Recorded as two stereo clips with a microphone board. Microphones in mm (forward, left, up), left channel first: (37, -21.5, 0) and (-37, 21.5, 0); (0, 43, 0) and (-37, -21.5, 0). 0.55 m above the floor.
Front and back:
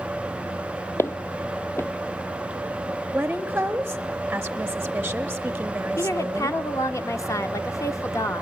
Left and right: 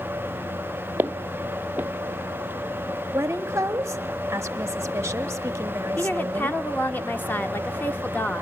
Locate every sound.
1.0 s footsteps: 70° right, 0.7 m
3.1 s a woman speaking: 145° right, 0.8 m
6.0 s a woman speaking: 10° left, 0.9 m